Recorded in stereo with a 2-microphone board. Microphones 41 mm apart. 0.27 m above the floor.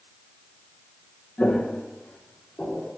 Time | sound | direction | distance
1.4 | footsteps | 35° left (ahead or behind) | 1.4 m